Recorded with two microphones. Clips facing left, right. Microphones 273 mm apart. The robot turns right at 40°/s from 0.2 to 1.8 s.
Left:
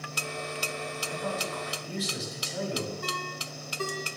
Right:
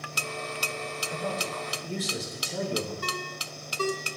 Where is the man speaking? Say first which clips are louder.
Right 1 dB; 25° right (ahead or behind), 2 m; by 2.9 s 55° right (ahead or behind), 2 m.